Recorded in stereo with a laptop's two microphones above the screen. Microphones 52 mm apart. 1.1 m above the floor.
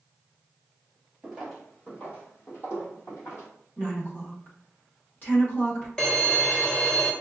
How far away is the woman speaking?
About 1.4 m.